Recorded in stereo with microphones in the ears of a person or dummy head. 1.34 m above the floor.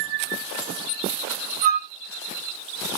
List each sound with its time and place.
1.6 s a flute: 20° right (ahead or behind), 0.8 m